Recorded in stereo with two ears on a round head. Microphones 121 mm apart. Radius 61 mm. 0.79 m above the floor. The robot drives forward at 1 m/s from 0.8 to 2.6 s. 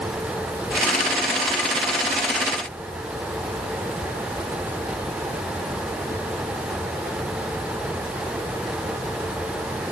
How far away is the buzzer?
I don't hear a buzzer.